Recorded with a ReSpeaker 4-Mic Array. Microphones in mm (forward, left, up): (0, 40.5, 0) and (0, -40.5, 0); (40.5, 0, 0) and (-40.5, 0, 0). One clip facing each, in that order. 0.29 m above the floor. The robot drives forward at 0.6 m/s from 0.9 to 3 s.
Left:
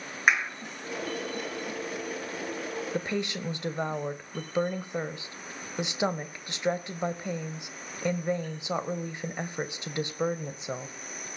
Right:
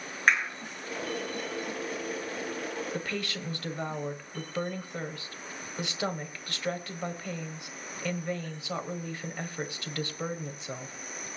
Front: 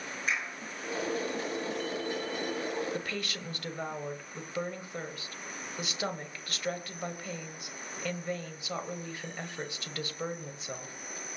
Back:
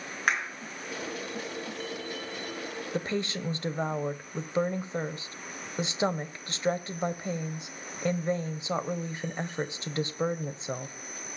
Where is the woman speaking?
140° left, 1.1 m; by 10.9 s 145° left, 1.1 m.